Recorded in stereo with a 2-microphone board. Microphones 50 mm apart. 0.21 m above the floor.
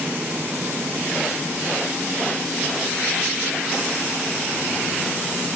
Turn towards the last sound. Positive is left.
No sound to turn to.